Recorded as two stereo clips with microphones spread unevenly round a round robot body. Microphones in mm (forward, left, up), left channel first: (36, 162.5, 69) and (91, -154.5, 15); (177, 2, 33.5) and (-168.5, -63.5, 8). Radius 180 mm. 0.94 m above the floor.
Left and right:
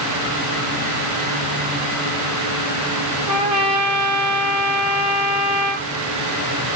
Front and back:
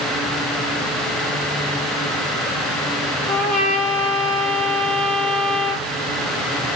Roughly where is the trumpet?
Ahead right.